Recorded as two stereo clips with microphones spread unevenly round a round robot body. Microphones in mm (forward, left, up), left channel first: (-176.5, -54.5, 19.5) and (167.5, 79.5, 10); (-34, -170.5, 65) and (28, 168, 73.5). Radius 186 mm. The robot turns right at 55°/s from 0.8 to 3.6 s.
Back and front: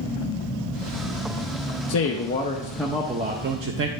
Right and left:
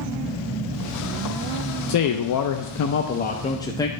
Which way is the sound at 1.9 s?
120° right.